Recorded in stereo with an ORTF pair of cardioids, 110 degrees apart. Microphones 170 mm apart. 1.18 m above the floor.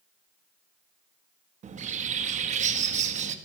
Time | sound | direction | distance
1.6 | a bird | 45° right | 1.6 m